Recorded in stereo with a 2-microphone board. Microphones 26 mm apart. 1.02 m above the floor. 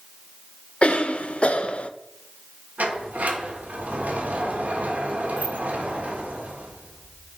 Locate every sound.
0.8 s a cough: 50° left (ahead or behind), 0.5 m
2.8 s a sliding door: 75° right (ahead or behind), 1.5 m